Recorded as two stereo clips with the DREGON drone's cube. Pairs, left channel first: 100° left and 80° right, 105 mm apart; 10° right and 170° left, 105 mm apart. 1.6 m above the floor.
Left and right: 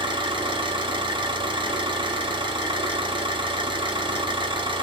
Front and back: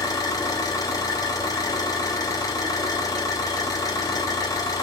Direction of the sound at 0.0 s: 55° right.